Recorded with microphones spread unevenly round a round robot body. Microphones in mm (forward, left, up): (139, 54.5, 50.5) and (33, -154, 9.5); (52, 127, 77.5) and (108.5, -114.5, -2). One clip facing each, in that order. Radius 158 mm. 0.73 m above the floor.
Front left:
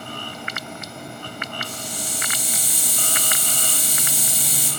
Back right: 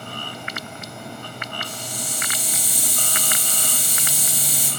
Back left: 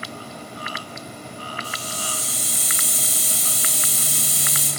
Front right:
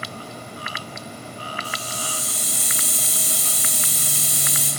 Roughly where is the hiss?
Behind left.